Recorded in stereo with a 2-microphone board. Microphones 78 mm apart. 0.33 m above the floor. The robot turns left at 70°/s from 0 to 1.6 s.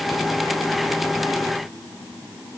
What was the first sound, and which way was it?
Only background noise.